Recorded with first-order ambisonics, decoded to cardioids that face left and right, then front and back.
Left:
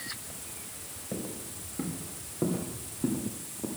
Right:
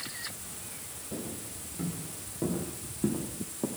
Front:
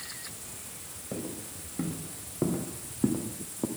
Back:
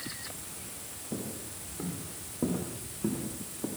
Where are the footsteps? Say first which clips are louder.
Left 2 dB, front 2 dB; 35° left, 4.5 m; by 3.7 s 30° right, 2.5 m.